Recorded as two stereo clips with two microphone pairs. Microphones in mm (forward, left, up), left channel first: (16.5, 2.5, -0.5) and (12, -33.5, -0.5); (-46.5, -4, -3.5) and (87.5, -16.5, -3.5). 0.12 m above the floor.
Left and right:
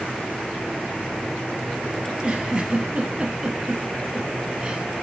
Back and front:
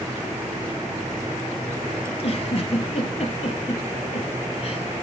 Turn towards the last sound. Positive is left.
turn(degrees=-160)